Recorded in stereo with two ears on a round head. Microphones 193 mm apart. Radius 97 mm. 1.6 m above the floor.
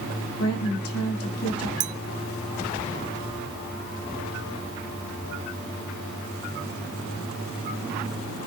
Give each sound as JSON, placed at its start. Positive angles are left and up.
{"t": 0.4, "sound": "a woman speaking", "side_deg": 85, "distance_m": 4.0}
{"t": 1.8, "sound": "a clink", "side_deg": -40, "distance_m": 0.6}